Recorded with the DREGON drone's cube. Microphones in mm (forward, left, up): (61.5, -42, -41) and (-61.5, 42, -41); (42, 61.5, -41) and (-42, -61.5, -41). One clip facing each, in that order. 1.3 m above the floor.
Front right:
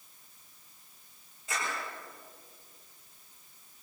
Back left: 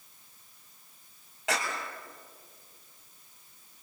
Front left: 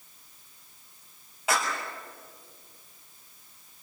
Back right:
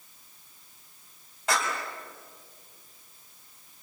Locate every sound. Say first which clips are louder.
1.5 s a clap: back left 4 dB, even; 140° left, 7 m